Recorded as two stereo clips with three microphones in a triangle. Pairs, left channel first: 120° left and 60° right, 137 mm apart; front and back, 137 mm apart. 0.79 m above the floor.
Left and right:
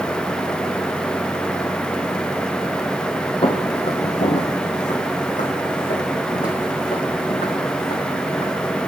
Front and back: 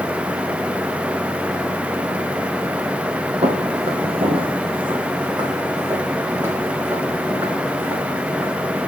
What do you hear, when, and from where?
3.4 s footsteps: 155° left, 1.4 m; by 8.5 s 115° left, 4 m